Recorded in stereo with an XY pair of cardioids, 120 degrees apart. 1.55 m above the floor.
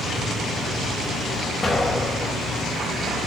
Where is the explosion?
25° left, 5 m.